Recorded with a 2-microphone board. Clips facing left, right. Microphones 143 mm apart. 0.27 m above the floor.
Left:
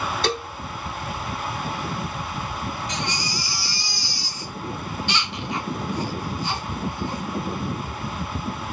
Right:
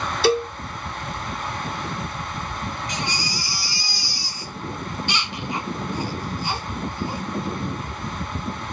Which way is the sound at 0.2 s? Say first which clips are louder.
Right 10 dB; 10° right (ahead or behind).